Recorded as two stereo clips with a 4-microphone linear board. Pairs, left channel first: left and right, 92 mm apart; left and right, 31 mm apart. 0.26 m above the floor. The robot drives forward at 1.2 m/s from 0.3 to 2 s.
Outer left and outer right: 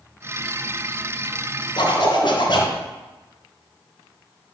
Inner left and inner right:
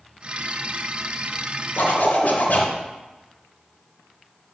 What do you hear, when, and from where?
1.8 s a zipper: 55° left (ahead or behind), 3 m